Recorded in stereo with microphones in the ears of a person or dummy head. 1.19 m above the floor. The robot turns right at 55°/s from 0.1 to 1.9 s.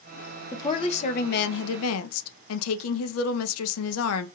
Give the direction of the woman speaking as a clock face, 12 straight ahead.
12 o'clock.